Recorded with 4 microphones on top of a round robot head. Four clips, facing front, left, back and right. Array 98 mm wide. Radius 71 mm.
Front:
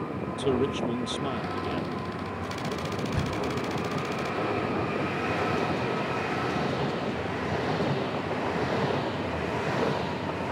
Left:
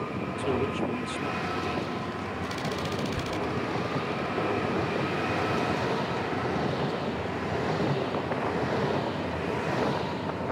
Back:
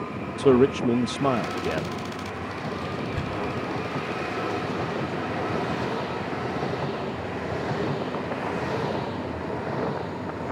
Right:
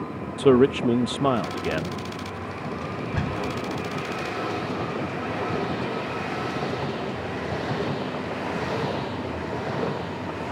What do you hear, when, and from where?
0.4 s a man speaking: 125° right
2.8 s a door slam: 75° right